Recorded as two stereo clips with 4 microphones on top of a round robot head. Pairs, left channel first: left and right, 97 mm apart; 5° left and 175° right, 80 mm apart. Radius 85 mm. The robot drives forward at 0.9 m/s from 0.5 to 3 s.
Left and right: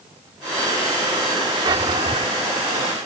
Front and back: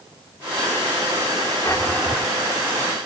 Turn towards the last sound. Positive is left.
turn(degrees=-130)